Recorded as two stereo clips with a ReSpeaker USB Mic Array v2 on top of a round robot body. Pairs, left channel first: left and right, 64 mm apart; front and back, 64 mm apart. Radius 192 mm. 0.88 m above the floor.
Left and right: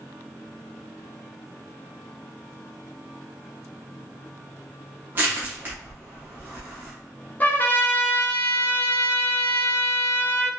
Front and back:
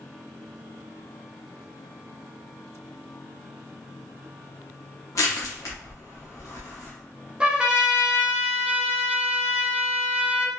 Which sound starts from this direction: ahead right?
Crushing, at 5.2 s.